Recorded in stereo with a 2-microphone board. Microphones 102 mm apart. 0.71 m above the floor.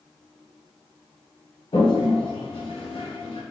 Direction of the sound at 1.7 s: 75° left (ahead or behind).